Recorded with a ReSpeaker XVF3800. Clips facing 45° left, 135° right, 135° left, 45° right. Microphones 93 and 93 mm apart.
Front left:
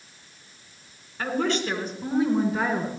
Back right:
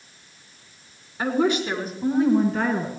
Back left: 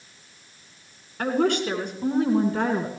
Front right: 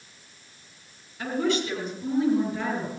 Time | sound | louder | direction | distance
1.2 | a woman speaking | back right 4 dB, back left 4 dB | 150° left | 3.5 m